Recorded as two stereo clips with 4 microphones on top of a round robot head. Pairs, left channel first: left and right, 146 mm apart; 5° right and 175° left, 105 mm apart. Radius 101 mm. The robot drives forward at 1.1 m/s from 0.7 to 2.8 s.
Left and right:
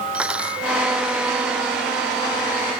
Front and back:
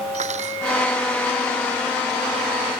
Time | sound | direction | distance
0.1 | cutlery clinking | 175° right | ?